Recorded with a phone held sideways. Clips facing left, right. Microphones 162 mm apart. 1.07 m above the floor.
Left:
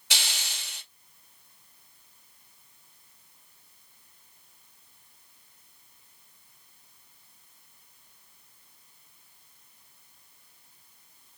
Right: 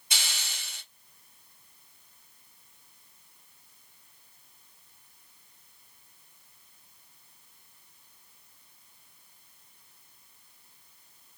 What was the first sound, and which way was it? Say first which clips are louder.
A hiss: left 2 dB; 85° left.